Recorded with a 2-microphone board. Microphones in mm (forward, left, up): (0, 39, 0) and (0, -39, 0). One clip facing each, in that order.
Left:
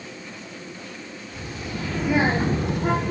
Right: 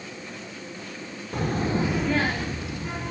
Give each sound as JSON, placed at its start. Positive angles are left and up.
{"t": 1.3, "sound": "a child speaking", "side_deg": -55, "distance_m": 1.3}